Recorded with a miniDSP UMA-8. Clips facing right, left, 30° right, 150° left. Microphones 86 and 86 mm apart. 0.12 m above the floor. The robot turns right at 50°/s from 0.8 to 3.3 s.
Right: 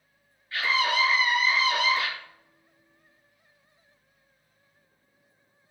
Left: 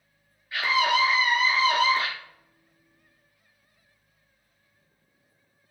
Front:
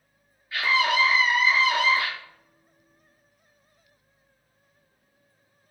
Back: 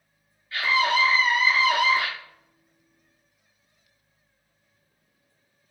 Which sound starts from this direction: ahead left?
A scream, at 0.5 s.